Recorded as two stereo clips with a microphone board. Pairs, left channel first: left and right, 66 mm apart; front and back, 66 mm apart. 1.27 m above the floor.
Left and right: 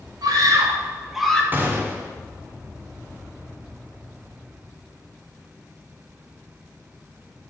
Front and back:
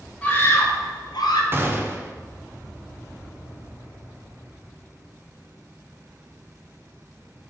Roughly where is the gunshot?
Behind right.